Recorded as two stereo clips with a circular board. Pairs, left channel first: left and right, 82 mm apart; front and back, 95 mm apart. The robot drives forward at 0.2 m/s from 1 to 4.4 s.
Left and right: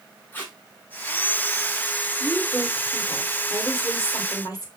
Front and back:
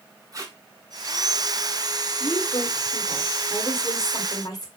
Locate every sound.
0.3 s tape being pulled: 150° left, 1.0 m
2.2 s a woman speaking: 40° left, 2.0 m; by 4.7 s 50° left, 1.7 m